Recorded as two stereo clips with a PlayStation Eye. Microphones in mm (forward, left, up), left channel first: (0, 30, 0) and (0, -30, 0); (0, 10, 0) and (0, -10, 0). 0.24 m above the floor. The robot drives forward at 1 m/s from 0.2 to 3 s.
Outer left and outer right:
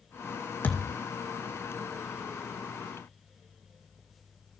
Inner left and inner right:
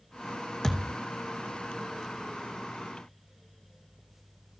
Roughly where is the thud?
Left.